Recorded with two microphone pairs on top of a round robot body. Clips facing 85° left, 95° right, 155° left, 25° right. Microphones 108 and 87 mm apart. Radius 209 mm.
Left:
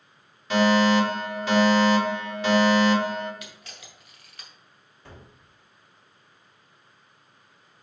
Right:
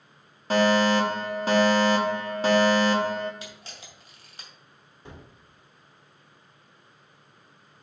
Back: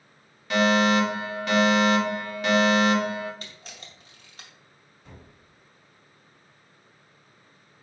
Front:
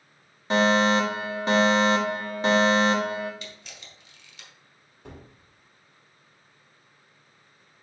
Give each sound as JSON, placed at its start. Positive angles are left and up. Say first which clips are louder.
{"t": 0.5, "sound": "a fire alarm", "louder": "left 1 dB, even", "azimuth_deg": -75, "distance_m": 2.5}
{"t": 3.4, "sound": "a camera shutter", "louder": "right 2 dB, front 1 dB", "azimuth_deg": -155, "distance_m": 2.5}
{"t": 5.0, "sound": "a gunshot", "louder": "right 2 dB, front 5 dB", "azimuth_deg": -20, "distance_m": 1.9}